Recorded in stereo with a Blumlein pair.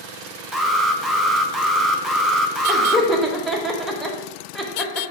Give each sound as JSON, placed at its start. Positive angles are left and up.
{"t": 0.5, "sound": "an alarm", "azimuth_deg": 0, "distance_m": 0.6}
{"t": 2.7, "sound": "laughter", "azimuth_deg": 0, "distance_m": 1.1}